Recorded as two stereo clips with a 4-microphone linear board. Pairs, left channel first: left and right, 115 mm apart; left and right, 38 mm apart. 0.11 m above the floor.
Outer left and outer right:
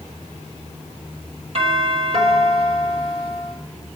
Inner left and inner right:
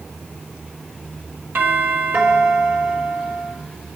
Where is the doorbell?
60° right (ahead or behind), 4 m.